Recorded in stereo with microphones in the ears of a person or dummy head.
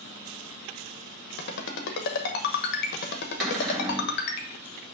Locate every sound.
1.4 s a ringtone: 60° left (ahead or behind), 1.0 m
3.4 s a cupboard door: 5° left (ahead or behind), 2.5 m